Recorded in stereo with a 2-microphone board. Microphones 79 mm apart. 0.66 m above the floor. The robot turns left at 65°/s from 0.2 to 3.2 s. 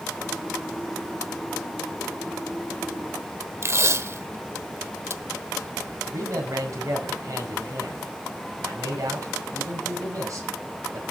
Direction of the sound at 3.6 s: 35° right (ahead or behind).